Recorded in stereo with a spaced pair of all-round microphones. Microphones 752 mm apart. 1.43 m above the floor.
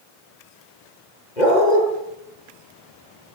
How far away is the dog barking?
About 9 m.